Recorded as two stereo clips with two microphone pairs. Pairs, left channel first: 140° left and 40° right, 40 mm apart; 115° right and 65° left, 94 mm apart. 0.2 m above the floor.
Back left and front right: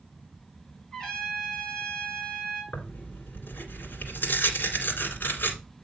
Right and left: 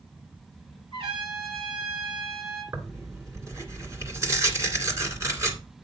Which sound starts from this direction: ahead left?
A trumpet, at 0.9 s.